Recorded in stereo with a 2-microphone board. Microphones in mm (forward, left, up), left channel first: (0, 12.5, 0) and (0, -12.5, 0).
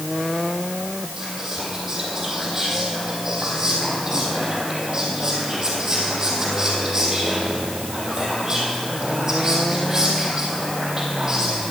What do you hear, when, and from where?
1.2 s whispering: 30° right (ahead or behind), 3.5 m